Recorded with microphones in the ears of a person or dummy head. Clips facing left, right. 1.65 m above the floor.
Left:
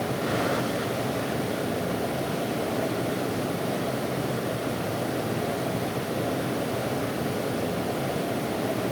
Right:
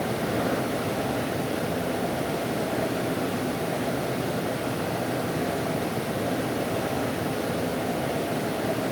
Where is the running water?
5° right (ahead or behind), 9 m.